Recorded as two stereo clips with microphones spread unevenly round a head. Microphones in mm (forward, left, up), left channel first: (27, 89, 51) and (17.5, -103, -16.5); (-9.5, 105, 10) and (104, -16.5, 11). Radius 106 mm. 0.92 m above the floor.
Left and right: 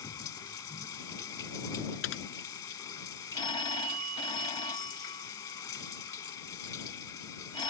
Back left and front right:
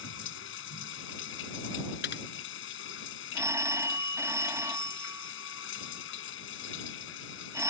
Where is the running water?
160° left.